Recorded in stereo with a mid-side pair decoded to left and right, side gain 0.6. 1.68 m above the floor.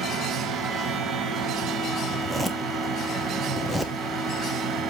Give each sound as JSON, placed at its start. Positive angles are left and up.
{"t": 0.0, "sound": "a fan", "azimuth_deg": -35, "distance_m": 3.5}
{"t": 2.1, "sound": "a zipper", "azimuth_deg": -5, "distance_m": 1.2}